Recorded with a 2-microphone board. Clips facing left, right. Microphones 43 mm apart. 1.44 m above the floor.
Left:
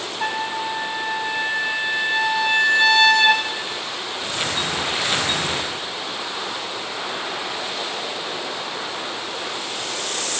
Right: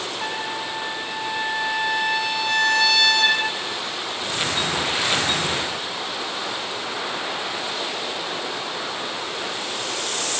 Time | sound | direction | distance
0.2 | a trumpet | 20° left (ahead or behind) | 5 m